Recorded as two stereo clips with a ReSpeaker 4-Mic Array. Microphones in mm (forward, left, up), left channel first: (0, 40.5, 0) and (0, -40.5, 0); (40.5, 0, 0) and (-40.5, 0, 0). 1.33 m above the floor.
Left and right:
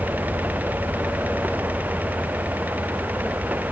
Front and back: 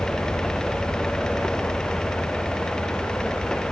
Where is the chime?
I don't hear a chime.